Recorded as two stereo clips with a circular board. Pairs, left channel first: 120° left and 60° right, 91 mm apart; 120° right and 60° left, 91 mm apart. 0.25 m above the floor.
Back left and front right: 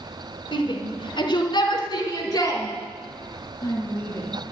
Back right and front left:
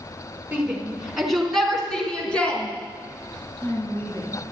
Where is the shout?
135° left, 3 m; by 4.5 s 175° right, 5 m.